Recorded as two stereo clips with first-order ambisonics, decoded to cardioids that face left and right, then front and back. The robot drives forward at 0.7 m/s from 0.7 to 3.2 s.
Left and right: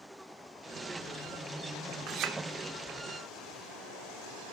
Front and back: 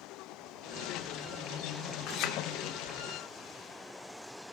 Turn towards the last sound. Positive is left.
turn(degrees=-70)